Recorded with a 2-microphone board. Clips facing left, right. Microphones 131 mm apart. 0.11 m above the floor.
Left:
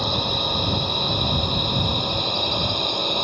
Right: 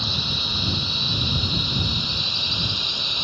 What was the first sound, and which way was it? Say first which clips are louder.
A drone: left 7 dB; 55° left (ahead or behind).